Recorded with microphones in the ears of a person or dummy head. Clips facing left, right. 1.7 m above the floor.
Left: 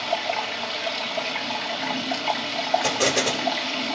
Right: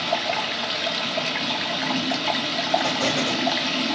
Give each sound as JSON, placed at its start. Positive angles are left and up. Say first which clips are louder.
{"t": 0.0, "sound": "running water", "louder": "right 1 dB", "side_deg": -20, "distance_m": 2.0}
{"t": 2.8, "sound": "an explosion", "louder": "left 1 dB", "side_deg": 65, "distance_m": 5.5}